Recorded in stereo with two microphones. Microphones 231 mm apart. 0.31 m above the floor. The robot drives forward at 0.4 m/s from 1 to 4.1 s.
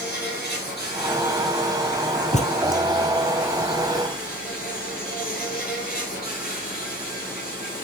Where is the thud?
30° left (ahead or behind), 1.1 m.